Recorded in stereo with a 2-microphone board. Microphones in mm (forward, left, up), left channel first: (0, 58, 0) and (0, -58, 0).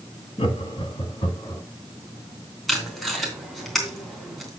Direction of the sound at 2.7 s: Centre (ahead or behind).